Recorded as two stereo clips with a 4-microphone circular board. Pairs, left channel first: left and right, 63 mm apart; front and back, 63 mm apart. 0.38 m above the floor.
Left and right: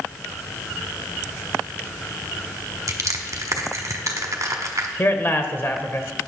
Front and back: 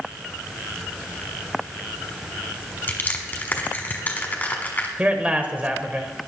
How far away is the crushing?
About 1.3 m.